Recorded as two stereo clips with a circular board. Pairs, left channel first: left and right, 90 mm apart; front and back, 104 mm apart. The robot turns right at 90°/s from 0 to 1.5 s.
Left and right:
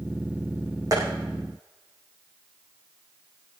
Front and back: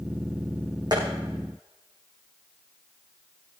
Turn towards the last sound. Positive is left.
turn(degrees=-85)